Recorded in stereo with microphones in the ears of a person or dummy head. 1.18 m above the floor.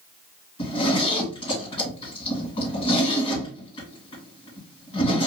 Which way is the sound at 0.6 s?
35° left (ahead or behind).